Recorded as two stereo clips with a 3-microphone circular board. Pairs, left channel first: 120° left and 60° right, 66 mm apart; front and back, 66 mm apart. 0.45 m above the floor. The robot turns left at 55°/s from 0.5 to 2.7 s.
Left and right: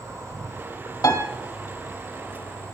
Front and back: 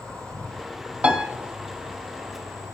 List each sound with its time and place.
0.0 s an insect: 80° right, 3 m; by 2.8 s 160° left, 3 m
1.0 s a piano: 110° left, 1.1 m; by 1.2 s 100° left, 1.1 m